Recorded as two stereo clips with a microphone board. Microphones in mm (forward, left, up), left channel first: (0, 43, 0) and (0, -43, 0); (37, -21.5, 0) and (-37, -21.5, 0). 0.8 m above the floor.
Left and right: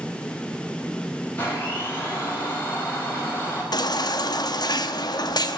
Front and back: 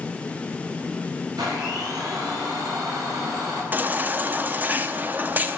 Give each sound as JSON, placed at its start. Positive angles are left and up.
{"t": 1.4, "sound": "a blender", "azimuth_deg": 155, "distance_m": 5.0}
{"t": 3.7, "sound": "a baby crying", "azimuth_deg": 115, "distance_m": 0.9}